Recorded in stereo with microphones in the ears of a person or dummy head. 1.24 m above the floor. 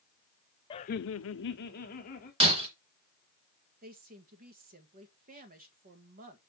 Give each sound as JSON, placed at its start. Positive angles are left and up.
{"t": 0.7, "sound": "laughter", "side_deg": 25, "distance_m": 0.6}
{"t": 2.4, "sound": "breaking glass", "side_deg": -25, "distance_m": 2.0}
{"t": 3.8, "sound": "a woman speaking", "side_deg": -40, "distance_m": 1.7}